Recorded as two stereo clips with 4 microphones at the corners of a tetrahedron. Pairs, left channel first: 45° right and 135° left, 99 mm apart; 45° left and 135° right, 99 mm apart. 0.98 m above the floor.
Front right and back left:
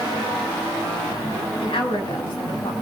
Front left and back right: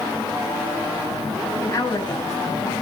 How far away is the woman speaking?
About 6.5 m.